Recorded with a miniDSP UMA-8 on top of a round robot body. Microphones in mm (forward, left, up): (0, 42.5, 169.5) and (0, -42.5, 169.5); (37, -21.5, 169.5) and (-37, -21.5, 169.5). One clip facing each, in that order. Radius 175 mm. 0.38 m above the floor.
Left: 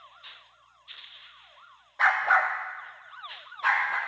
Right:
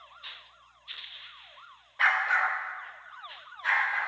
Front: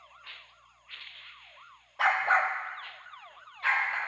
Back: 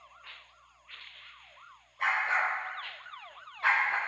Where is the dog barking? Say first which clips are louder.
Left 3 dB, front 4 dB; 20° left, 0.7 m; by 4.0 s 115° left, 1.7 m.